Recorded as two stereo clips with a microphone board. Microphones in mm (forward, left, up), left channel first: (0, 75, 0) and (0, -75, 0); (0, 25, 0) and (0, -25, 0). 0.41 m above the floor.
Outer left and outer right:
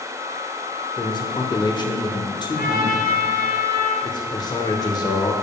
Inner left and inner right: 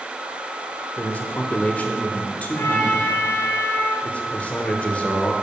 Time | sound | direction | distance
1.0 | a man speaking | 30° left (ahead or behind) | 0.9 m
2.5 | a trumpet | 80° left | 1.9 m
4.0 | a man speaking | 25° left (ahead or behind) | 0.9 m